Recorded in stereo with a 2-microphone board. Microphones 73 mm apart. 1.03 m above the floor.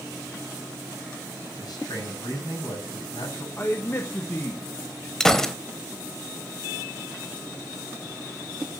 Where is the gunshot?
5° left (ahead or behind), 1.1 m.